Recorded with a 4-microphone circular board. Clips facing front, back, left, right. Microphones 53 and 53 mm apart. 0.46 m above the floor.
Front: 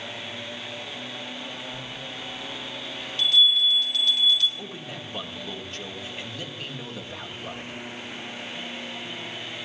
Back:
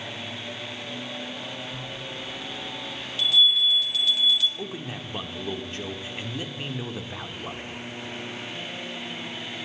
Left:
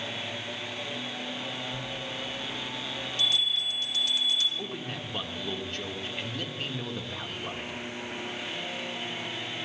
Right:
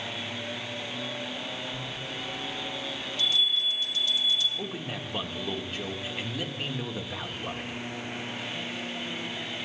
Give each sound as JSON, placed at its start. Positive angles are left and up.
{"t": 1.7, "sound": "a bell", "azimuth_deg": 95, "distance_m": 1.6}
{"t": 4.6, "sound": "a man speaking", "azimuth_deg": -155, "distance_m": 1.0}